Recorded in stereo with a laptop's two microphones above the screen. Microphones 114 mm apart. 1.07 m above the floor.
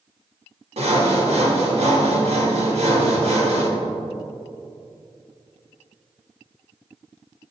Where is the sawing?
65° right (ahead or behind), 1.5 m.